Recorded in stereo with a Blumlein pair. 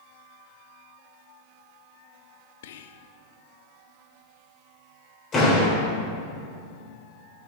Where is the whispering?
55° left, 0.7 m.